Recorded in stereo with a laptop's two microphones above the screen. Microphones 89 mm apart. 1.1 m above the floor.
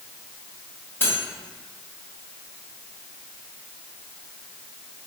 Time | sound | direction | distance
1.0 | cutlery clinking | 25° left (ahead or behind) | 1.3 m